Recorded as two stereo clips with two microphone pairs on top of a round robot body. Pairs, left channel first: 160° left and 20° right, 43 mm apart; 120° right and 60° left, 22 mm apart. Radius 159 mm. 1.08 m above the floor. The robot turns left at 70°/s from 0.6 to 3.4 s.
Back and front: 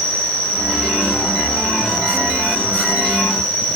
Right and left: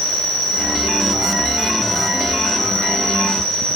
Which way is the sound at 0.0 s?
75° left.